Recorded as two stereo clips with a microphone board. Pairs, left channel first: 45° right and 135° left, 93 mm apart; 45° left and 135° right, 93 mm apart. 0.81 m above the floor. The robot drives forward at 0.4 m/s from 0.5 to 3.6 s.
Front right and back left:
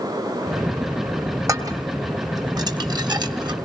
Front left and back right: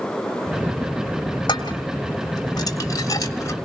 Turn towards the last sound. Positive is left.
turn(degrees=100)